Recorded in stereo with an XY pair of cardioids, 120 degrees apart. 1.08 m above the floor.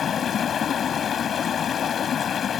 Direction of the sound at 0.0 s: 45° left.